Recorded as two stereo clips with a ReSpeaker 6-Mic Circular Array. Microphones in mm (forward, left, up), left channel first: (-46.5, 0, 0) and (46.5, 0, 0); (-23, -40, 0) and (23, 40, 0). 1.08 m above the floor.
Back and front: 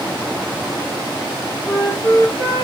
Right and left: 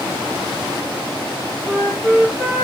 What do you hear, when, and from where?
1.6 s a flute: 135° left, 4 m